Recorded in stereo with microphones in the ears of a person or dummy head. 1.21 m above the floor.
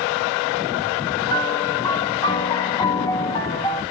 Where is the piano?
20° left (ahead or behind), 0.9 m.